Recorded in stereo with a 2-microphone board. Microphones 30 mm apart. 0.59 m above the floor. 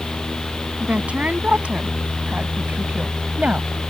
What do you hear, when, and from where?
0.8 s a woman speaking: 55° right (ahead or behind); by 3.7 s 45° right (ahead or behind)